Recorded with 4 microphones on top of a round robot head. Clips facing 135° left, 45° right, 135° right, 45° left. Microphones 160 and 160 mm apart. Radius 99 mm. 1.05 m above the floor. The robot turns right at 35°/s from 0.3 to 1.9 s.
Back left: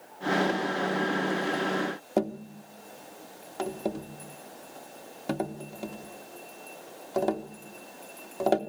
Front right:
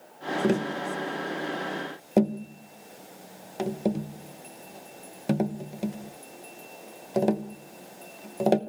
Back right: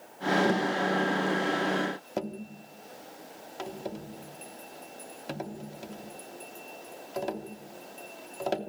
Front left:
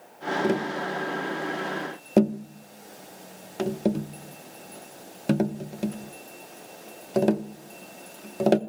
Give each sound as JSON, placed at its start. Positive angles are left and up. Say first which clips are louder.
{"t": 0.4, "sound": "tapping", "louder": "front right 2 dB, front left 1 dB", "azimuth_deg": -25, "distance_m": 1.0}